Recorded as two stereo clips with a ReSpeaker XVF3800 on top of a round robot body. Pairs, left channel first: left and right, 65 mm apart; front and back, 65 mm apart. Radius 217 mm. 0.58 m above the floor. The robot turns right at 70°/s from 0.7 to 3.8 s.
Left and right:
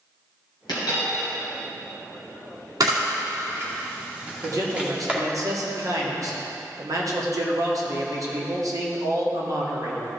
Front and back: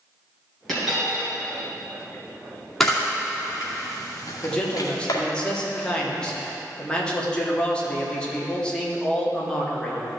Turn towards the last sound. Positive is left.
turn(degrees=-75)